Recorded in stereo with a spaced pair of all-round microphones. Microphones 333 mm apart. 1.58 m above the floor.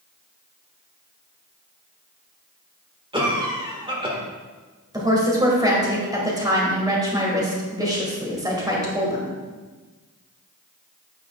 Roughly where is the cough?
Centre.